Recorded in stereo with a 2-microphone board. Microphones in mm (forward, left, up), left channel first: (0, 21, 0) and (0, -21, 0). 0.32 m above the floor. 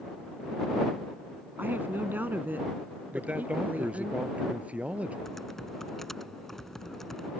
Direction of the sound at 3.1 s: 30° right (ahead or behind).